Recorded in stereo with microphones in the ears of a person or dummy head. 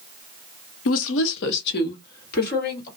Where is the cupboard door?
I don't hear a cupboard door.